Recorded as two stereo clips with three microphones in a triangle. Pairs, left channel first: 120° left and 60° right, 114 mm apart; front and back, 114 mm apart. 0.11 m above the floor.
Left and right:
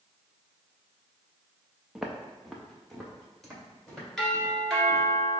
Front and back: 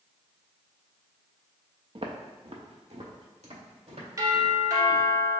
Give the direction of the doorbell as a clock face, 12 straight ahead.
5 o'clock.